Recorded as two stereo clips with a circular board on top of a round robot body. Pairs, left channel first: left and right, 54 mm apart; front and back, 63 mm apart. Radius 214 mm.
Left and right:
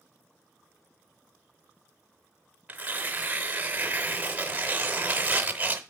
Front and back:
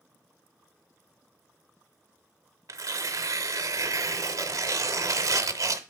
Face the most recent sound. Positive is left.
turn(degrees=-155)